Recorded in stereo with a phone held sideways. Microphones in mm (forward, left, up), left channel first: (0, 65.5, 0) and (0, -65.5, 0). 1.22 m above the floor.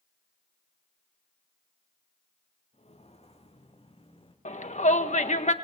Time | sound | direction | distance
2.7 | footsteps | 55° left (ahead or behind) | 5.5 m
4.5 | a shout | 65° left (ahead or behind) | 1.6 m